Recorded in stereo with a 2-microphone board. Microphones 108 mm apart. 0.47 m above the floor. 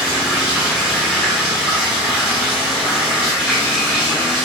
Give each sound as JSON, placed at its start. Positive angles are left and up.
{"t": 0.0, "sound": "running water", "side_deg": -5, "distance_m": 1.1}